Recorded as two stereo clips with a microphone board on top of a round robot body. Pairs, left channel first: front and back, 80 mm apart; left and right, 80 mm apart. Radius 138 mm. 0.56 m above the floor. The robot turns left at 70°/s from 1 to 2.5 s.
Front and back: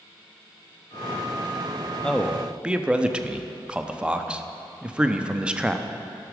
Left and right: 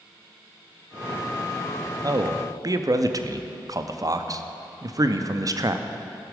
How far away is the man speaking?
About 0.9 m.